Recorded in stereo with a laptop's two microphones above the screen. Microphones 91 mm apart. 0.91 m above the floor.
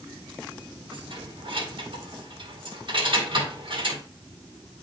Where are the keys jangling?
60° right (ahead or behind), 1.9 m.